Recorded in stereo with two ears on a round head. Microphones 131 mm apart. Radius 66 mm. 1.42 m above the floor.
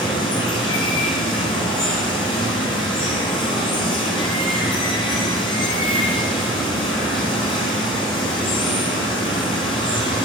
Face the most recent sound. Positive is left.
turn(degrees=35)  # may be behind; listen again after turning